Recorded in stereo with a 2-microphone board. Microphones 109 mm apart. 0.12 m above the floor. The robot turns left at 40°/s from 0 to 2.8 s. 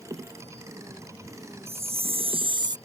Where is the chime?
90° right; by 2.8 s 135° right.